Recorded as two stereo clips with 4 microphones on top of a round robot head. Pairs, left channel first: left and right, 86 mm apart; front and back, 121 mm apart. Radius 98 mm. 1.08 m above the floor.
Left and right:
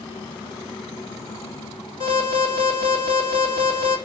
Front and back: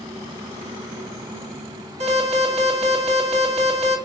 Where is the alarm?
150° left, 2.5 m.